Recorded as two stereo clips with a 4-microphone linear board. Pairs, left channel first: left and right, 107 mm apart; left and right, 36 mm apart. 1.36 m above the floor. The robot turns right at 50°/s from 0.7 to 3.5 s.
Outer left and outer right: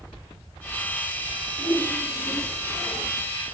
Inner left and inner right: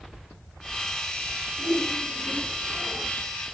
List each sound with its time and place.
1.6 s a whoosh: 110° left, 4.5 m; by 2.6 s 160° left, 4.5 m